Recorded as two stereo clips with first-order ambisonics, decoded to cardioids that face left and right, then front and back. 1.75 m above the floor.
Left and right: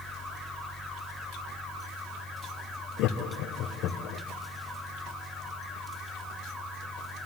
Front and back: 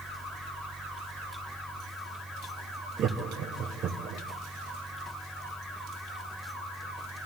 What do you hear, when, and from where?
3.0 s laughter: 130° left, 1.2 m